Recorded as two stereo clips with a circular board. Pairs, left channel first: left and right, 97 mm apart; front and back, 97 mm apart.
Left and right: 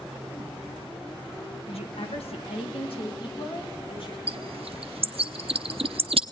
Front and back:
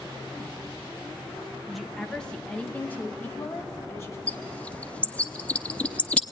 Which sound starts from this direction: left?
A woman speaking, at 1.7 s.